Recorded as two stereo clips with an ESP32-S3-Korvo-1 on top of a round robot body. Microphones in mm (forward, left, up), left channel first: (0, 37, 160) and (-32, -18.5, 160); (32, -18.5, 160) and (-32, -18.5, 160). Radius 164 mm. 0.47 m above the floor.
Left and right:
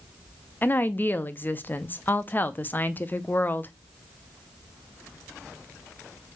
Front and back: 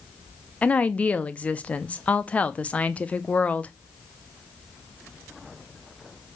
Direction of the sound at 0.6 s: 45° left.